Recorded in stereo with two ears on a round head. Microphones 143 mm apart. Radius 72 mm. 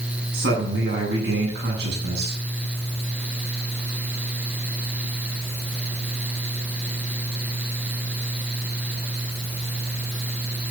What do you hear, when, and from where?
0.3 s a man speaking: 75° right (ahead or behind), 9 m